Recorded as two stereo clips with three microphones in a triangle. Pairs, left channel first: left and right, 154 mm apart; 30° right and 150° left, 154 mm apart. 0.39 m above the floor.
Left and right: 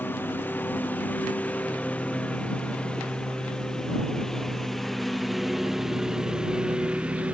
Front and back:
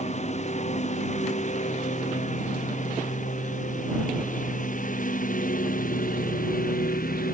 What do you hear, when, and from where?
0.0 s a lawn mower: 10° left; by 7.3 s 10° right